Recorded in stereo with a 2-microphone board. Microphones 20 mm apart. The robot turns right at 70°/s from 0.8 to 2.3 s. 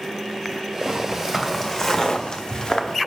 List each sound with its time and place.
0.9 s footsteps: 45° right (ahead or behind), 1.7 m; by 3.0 s 20° left (ahead or behind), 1.0 m